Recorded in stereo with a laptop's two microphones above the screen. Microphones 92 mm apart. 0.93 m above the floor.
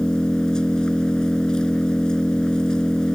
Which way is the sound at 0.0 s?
10° left (ahead or behind).